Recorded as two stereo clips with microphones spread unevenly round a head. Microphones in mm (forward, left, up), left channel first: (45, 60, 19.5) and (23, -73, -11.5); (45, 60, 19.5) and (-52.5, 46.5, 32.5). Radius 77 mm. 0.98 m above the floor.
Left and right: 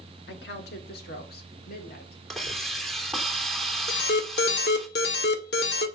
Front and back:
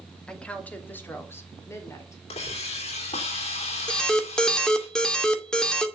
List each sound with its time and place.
0.3 s a woman speaking: 85° left, 2.5 m; by 2.2 s 65° left, 4.5 m
2.3 s a hiss: 10° right, 3 m
3.9 s an alarm: 90° left, 2 m